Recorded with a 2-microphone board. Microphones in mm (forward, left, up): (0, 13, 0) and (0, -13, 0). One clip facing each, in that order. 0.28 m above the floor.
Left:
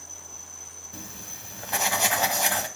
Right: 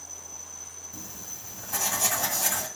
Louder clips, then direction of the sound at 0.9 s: Left 2 dB; 45° left (ahead or behind).